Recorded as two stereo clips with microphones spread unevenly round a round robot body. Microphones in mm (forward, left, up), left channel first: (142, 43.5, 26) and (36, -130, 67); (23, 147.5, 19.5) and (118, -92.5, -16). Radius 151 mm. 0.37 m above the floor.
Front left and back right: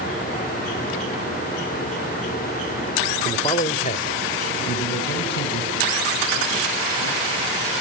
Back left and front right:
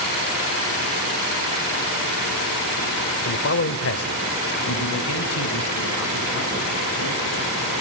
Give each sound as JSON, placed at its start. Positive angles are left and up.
{"t": 3.2, "sound": "a man speaking", "azimuth_deg": 105, "distance_m": 0.9}